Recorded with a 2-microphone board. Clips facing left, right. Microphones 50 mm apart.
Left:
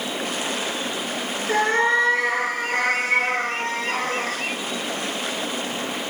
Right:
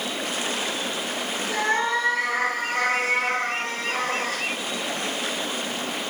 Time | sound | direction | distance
1.5 | a cat meowing | 65° left (ahead or behind) | 2.5 m